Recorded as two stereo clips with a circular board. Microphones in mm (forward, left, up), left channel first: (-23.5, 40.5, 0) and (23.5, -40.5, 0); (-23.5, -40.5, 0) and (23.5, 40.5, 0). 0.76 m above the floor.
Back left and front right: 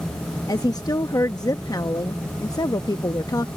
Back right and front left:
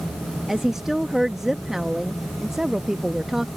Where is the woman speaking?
145° left.